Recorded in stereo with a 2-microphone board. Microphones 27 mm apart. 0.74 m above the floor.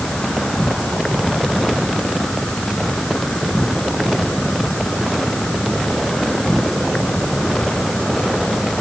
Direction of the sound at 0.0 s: 20° left (ahead or behind).